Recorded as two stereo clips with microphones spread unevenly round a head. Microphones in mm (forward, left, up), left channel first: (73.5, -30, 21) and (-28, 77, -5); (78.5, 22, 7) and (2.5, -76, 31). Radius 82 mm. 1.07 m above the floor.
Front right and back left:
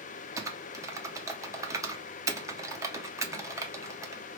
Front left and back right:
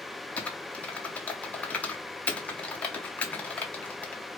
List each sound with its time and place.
0.4 s typing on a keyboard: 100° left, 0.6 m